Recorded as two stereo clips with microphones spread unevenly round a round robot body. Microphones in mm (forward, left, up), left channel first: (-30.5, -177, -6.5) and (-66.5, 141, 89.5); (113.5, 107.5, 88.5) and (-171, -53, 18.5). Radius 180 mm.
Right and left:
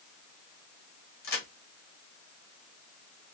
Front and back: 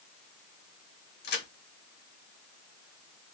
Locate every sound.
1.2 s a crack: 35° right, 1.2 m